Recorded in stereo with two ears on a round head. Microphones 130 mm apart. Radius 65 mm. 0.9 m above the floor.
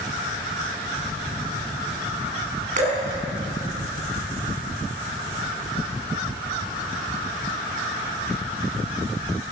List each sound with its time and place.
2.8 s dripping: 55° right (ahead or behind), 5.5 m